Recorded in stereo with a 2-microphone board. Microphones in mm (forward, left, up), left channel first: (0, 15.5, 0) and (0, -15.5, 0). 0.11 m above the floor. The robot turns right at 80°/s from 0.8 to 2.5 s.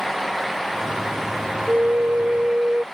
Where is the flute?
115° right; by 2.8 s 50° right.